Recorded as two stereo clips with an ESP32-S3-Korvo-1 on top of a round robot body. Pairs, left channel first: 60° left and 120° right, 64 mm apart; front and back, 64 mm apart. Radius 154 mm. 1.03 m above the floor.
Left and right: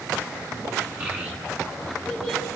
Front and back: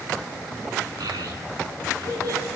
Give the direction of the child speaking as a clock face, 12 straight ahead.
6 o'clock.